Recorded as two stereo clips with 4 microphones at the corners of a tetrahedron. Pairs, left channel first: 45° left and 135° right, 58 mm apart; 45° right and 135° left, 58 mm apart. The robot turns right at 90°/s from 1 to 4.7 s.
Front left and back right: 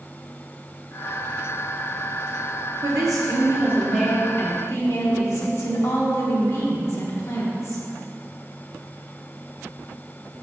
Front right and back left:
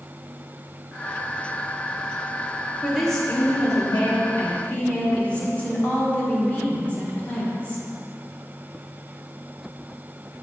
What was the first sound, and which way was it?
A woman speaking, 150° right.